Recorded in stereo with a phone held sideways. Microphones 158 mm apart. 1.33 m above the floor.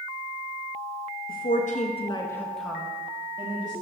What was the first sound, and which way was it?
A woman speaking, 65° left (ahead or behind).